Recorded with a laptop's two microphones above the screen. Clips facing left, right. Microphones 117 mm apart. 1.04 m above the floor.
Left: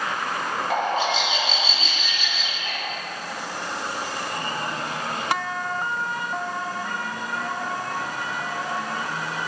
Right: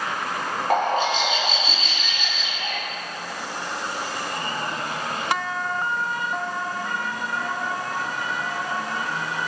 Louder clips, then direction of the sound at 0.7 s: Right 3 dB; 50° right (ahead or behind).